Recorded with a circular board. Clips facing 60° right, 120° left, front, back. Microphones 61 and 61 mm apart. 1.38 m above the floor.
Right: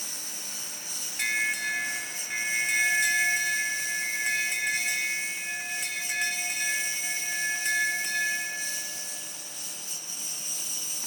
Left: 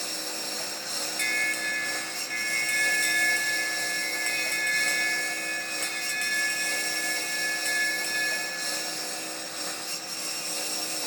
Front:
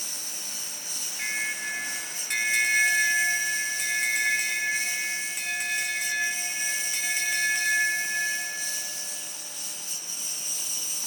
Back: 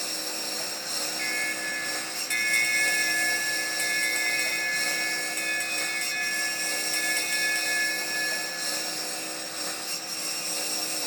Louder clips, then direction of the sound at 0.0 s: Left 7 dB, back 7 dB; 150° left.